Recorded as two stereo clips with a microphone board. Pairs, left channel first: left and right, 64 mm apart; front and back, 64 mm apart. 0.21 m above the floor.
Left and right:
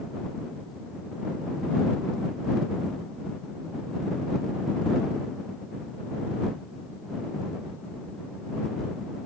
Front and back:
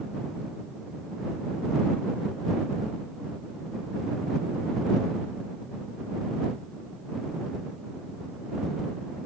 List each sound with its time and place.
Only background noise.